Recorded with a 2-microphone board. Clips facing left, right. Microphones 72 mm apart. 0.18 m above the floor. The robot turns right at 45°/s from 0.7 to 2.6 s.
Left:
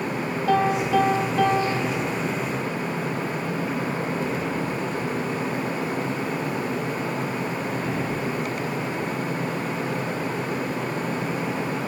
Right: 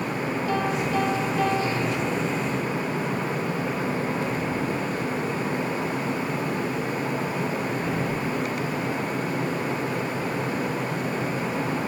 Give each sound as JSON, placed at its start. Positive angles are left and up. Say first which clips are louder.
{"t": 0.5, "sound": "a piano", "louder": "left 7 dB", "azimuth_deg": 85, "distance_m": 3.5}